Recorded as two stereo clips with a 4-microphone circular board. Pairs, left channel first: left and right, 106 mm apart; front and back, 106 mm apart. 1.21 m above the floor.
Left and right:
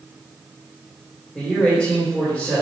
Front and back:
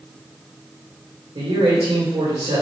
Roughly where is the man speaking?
Behind.